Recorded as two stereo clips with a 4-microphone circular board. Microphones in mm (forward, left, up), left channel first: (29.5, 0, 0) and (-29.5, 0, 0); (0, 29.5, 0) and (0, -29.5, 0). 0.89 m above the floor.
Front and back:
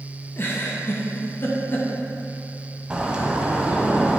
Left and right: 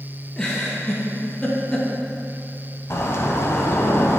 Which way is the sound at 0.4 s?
20° left.